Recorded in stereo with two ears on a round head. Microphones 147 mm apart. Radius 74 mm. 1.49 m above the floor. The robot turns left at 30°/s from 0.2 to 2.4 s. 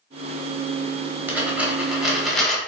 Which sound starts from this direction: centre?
A dropped coin, at 1.3 s.